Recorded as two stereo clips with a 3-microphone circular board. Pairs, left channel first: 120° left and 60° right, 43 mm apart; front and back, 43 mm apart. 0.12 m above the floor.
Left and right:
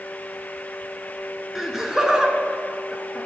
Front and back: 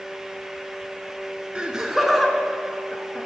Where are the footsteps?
No footsteps in this recording.